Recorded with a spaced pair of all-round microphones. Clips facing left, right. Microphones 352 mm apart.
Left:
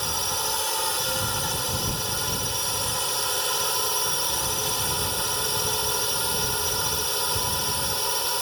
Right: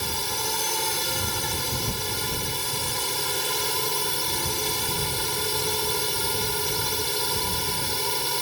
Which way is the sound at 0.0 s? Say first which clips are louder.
Right 1 dB; 30° right (ahead or behind).